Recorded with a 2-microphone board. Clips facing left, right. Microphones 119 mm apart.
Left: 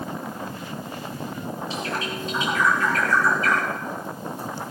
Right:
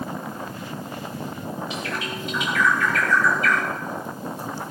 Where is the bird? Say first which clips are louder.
Left 1 dB; 35° left (ahead or behind), 3.5 m.